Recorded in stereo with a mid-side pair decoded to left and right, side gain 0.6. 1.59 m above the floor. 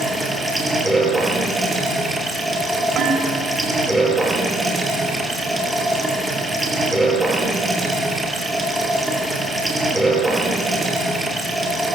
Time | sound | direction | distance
0.0 | running water | 10° right | 6.5 m
3.0 | dishes clattering | 50° right | 5.5 m